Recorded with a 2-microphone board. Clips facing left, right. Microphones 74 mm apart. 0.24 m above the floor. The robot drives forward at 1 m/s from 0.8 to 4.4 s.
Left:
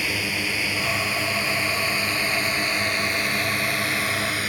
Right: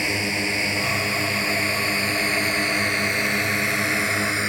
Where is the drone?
25° right (ahead or behind).